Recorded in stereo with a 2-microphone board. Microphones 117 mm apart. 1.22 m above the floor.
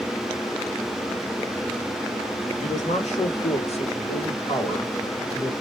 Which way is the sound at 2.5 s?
80° left.